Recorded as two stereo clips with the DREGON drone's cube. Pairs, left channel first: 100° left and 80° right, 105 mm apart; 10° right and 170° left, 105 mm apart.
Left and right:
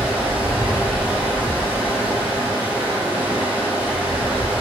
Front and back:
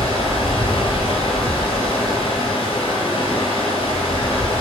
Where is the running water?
5° right, 1.3 m.